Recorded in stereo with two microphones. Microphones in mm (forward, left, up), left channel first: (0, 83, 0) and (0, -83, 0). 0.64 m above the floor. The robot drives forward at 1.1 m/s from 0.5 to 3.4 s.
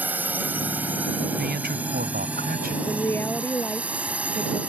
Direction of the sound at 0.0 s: 10° right (ahead or behind).